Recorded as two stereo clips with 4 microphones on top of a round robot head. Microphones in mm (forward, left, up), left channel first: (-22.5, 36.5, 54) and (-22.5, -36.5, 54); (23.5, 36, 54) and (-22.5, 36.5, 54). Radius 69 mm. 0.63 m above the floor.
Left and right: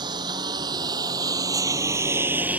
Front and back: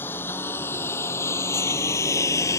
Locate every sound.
0.0 s a lawn mower: 55° right; by 2.6 s 15° right